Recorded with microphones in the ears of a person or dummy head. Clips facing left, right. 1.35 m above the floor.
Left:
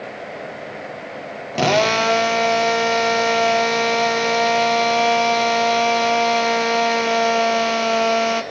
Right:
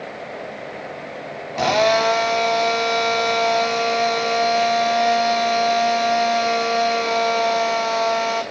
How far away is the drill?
About 1.8 m.